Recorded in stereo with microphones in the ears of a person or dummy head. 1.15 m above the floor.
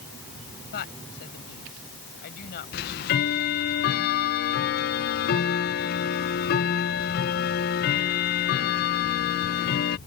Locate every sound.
0.7 s a woman speaking: 50° left (ahead or behind)
2.7 s ticking: 45° left (ahead or behind)